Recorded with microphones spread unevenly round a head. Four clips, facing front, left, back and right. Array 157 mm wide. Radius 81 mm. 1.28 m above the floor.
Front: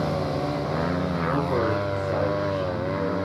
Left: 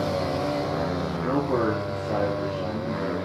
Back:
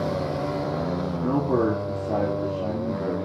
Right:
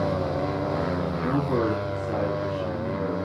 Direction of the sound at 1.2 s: 160° left.